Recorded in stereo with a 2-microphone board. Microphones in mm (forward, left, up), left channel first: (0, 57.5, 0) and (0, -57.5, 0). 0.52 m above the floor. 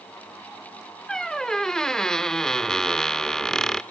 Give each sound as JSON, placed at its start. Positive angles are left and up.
{"t": 1.1, "sound": "a squeak", "side_deg": 5, "distance_m": 0.5}